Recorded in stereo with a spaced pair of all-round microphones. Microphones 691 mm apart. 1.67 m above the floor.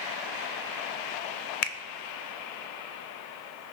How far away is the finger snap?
About 0.8 m.